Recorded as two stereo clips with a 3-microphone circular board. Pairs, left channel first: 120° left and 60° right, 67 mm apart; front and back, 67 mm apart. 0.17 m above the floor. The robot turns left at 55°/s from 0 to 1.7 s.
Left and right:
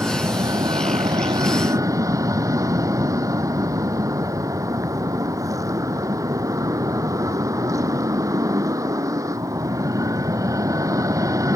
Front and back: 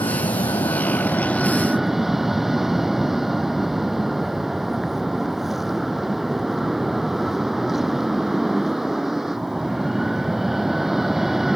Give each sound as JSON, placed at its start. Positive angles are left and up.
{"t": 0.0, "sound": "an aircraft", "azimuth_deg": 0}